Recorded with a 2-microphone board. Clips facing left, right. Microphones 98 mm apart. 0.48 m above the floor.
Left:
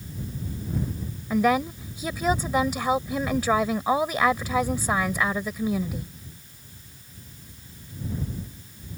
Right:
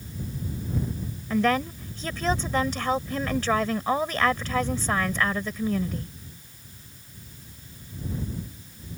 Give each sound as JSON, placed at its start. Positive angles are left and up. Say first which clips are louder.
{"t": 1.3, "sound": "a woman speaking", "louder": "left 2 dB", "side_deg": 10}